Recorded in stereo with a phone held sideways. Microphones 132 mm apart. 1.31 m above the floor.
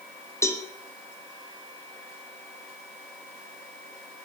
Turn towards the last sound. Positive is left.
turn(degrees=20)  # may be behind; listen again after turning